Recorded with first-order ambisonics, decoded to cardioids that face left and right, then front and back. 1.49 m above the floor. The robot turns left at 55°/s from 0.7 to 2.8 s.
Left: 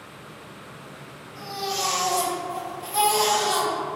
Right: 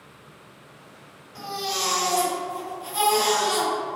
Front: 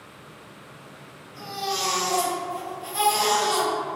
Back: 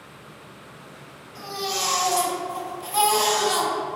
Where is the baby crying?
130° right, 2.0 m; by 3.7 s 150° left, 2.0 m.